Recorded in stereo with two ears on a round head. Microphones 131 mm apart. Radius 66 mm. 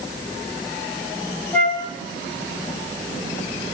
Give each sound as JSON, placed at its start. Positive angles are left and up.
{"t": 1.5, "sound": "a flute", "side_deg": 10, "distance_m": 3.0}